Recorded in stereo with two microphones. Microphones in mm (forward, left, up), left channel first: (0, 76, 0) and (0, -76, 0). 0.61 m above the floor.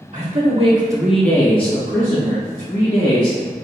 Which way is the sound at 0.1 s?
55° right (ahead or behind).